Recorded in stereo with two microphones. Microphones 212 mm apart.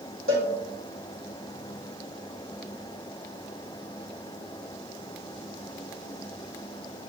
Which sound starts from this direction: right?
A cowbell, at 0.3 s.